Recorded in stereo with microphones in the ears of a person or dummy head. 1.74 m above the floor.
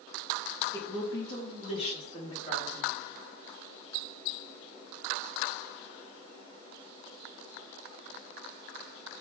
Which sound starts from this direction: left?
A woman speaking, at 0.7 s.